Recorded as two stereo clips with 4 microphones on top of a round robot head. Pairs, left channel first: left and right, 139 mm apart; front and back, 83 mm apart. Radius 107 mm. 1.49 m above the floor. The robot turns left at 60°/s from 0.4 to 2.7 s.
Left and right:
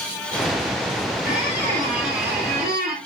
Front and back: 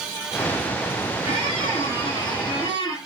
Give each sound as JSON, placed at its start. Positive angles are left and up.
{"t": 1.2, "sound": "a squeak", "azimuth_deg": -10, "distance_m": 5.0}